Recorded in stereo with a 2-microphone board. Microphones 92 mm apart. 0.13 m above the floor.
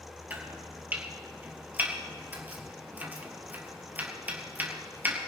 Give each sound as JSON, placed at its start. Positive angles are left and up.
{"t": 0.3, "sound": "chopping", "side_deg": -20, "distance_m": 2.5}